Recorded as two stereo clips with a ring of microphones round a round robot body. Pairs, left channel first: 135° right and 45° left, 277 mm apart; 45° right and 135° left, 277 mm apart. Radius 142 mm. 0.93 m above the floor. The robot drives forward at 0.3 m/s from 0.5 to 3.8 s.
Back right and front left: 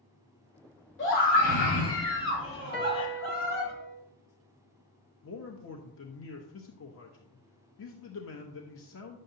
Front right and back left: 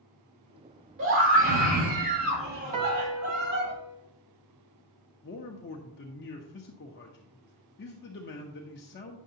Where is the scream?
Straight behind, 2.5 m.